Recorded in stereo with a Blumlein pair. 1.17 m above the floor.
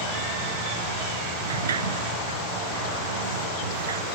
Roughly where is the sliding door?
Ahead right.